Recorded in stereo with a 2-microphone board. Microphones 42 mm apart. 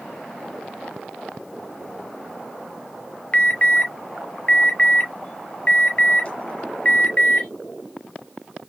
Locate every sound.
3.3 s an alarm: 30° left (ahead or behind), 0.6 m